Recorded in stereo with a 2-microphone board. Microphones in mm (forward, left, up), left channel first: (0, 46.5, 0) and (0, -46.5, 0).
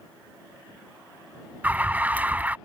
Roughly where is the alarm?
Centre.